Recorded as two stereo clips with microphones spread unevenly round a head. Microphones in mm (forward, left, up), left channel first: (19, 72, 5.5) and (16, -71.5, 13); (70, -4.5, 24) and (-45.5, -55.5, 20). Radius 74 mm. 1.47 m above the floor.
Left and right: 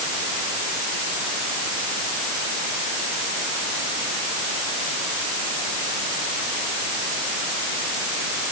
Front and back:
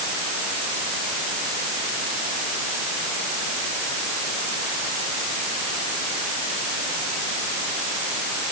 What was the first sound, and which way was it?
Only background noise.